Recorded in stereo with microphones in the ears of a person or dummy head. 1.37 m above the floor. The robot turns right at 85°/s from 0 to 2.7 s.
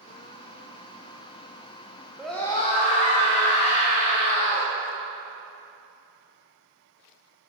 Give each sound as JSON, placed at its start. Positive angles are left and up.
{"t": 2.2, "sound": "a scream", "azimuth_deg": -5, "distance_m": 0.9}